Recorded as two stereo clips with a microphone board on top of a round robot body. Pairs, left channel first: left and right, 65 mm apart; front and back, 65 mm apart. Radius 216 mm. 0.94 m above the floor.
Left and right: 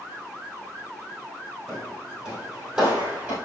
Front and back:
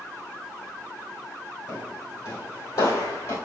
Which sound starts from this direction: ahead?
Footsteps, at 1.7 s.